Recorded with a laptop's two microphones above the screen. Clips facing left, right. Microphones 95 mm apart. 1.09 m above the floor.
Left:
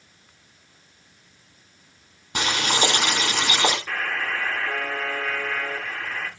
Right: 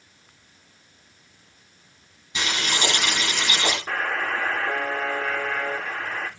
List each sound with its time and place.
2.4 s boiling: 60° left (ahead or behind), 6 m
3.9 s a buzzer: 30° right (ahead or behind), 2.5 m